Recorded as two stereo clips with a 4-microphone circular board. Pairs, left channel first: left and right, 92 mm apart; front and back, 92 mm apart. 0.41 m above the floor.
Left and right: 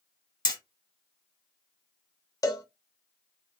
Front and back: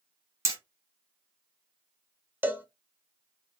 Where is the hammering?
125° left, 1.6 m.